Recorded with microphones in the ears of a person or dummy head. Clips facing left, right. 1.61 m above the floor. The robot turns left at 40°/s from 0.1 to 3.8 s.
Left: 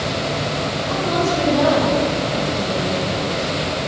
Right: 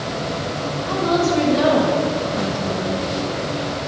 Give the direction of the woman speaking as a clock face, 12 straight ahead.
4 o'clock.